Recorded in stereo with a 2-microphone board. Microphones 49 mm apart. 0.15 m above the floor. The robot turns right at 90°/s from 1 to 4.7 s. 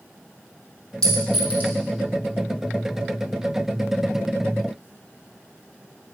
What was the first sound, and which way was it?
A clink, 15° left (ahead or behind).